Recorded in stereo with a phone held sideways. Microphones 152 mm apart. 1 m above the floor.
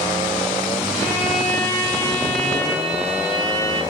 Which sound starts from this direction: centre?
A violin, at 0.9 s.